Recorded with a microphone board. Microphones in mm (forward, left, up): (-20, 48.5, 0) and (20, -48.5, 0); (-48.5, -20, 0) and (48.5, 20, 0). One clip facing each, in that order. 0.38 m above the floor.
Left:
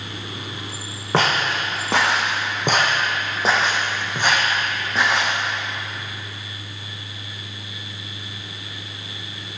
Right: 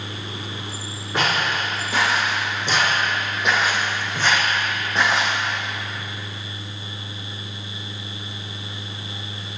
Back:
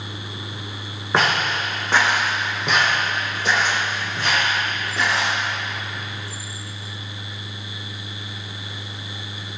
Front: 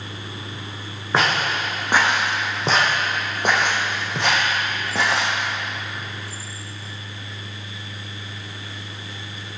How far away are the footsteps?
About 1.5 m.